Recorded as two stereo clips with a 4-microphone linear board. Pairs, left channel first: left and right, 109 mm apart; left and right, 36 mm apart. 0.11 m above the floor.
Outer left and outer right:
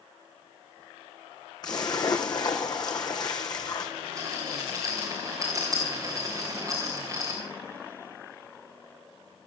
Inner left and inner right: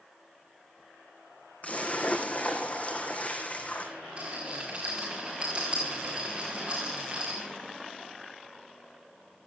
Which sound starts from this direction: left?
A splash, at 1.6 s.